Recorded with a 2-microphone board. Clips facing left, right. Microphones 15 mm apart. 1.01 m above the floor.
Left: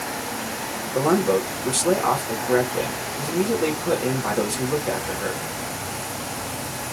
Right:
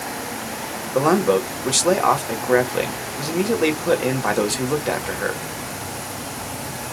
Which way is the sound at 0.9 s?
50° right (ahead or behind).